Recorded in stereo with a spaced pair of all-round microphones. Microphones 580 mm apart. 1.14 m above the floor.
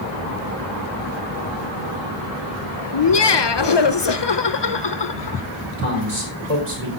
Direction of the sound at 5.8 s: 55° right (ahead or behind).